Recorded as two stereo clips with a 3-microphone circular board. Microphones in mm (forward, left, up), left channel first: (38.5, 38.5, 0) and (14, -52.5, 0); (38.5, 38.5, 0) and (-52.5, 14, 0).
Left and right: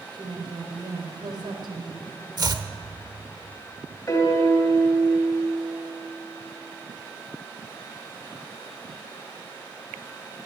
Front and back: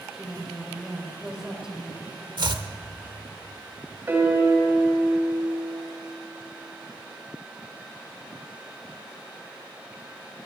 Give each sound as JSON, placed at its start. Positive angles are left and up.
{"t": 0.1, "sound": "a woman speaking", "azimuth_deg": -85, "distance_m": 3.0}
{"t": 2.4, "sound": "chopping", "azimuth_deg": -140, "distance_m": 1.0}
{"t": 4.1, "sound": "a piano", "azimuth_deg": 130, "distance_m": 2.5}